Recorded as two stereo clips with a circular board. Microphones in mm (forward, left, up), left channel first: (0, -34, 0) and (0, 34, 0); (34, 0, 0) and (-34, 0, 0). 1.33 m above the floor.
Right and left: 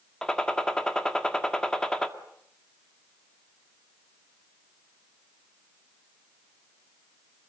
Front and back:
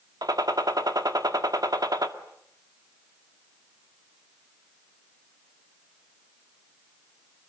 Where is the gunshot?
170° right, 1.9 m.